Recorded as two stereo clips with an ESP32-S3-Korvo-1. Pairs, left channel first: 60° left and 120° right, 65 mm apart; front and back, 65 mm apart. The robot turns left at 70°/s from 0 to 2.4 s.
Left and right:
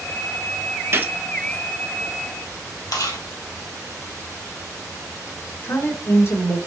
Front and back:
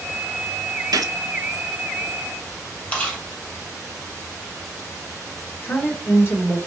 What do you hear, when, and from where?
0.9 s a gunshot: 170° right, 0.6 m; by 1.1 s 175° left, 0.6 m
2.9 s chewing: 65° left, 2.0 m
5.6 s a woman speaking: 40° left, 2.5 m